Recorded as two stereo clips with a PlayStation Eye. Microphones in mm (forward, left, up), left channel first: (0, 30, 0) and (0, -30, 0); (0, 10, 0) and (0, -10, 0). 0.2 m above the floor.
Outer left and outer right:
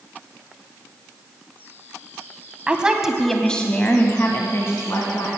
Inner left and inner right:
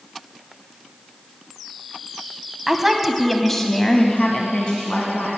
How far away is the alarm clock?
No alarm clock in this recording.